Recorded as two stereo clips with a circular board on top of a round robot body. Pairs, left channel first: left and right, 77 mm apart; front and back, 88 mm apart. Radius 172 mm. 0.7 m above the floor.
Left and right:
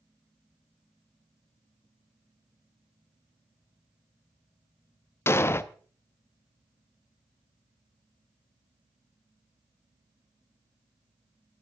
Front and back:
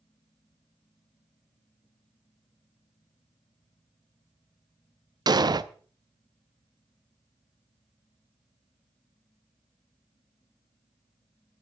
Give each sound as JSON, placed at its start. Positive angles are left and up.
{"t": 5.3, "sound": "an explosion", "azimuth_deg": 145, "distance_m": 0.7}